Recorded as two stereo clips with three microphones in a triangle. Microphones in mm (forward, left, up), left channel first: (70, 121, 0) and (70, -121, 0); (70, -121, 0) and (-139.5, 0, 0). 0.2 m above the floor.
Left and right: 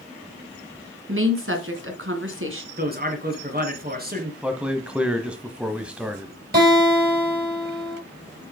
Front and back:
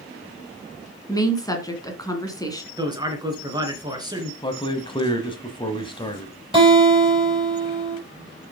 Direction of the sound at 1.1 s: 105° right.